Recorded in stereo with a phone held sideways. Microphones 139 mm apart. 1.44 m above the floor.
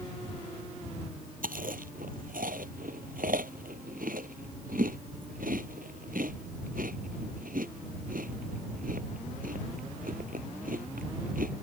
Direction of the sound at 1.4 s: 85° right.